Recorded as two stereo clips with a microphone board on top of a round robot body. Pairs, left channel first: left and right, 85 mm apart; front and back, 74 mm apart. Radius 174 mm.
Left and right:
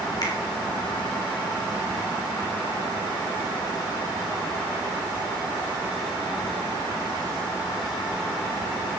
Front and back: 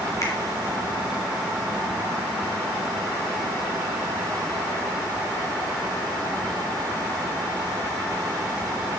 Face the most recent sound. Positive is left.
turn(degrees=50)